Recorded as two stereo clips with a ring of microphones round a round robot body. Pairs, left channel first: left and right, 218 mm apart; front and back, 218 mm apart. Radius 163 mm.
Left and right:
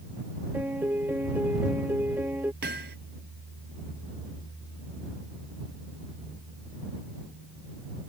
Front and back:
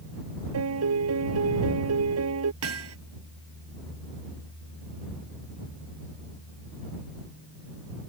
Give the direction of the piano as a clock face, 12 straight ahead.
6 o'clock.